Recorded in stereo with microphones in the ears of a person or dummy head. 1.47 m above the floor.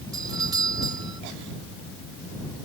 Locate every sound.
0.1 s a doorbell: 25° right (ahead or behind)